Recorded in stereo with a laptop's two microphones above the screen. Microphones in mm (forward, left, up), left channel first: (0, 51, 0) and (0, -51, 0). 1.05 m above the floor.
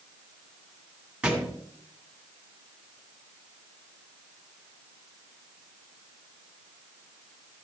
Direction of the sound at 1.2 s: 10° right (ahead or behind).